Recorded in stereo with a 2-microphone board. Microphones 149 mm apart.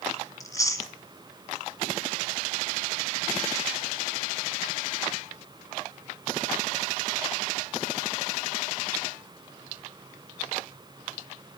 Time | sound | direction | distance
0.4 | chewing | 25° left (ahead or behind) | 1.3 m